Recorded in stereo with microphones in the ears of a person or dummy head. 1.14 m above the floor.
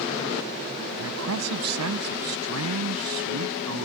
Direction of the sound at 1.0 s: 85° right.